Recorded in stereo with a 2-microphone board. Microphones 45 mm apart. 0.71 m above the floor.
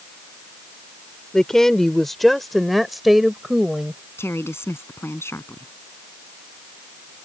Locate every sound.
1.3 s a woman speaking: 15° left (ahead or behind); by 4.0 s 5° right (ahead or behind)
4.2 s a woman speaking: 75° left (ahead or behind)